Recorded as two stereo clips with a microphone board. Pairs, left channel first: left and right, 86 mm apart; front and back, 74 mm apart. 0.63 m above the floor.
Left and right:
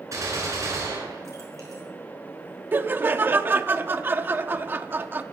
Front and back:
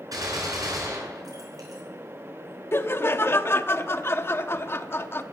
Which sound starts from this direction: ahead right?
Laughter, at 2.7 s.